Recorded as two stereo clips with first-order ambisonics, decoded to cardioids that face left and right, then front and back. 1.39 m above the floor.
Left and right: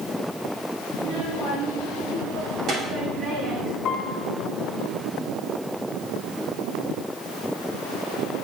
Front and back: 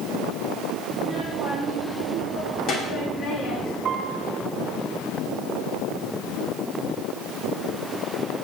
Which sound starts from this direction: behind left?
A piano, at 3.9 s.